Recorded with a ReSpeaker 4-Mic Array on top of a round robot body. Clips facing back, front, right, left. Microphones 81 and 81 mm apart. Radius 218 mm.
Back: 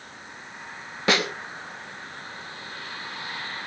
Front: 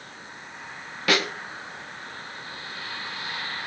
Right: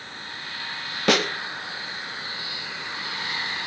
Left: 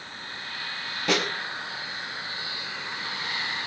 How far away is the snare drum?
About 4 m.